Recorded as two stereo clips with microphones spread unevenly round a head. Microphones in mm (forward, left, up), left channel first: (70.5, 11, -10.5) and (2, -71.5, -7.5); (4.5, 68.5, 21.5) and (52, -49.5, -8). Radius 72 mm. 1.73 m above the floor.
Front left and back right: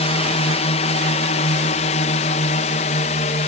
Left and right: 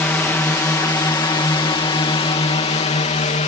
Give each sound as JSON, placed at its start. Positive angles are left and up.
{"t": 0.0, "sound": "a drone", "azimuth_deg": 35}